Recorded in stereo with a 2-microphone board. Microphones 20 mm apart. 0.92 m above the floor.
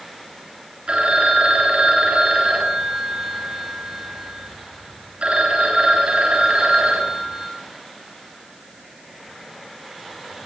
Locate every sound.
0.9 s a phone ringing: 60° right (ahead or behind), 5 m